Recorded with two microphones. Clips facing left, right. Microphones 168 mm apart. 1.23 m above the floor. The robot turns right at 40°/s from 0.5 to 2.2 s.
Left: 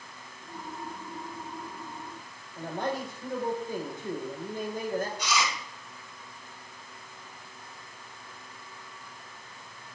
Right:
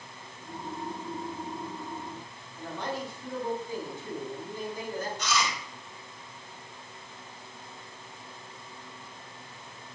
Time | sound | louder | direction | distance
2.6 | a man speaking | left 3 dB | 55° left (ahead or behind) | 5.5 m
5.2 | chewing | even | 10° left (ahead or behind) | 8.5 m